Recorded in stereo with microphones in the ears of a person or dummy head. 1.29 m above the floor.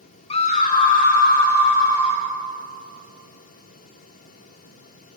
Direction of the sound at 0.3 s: 25° left (ahead or behind).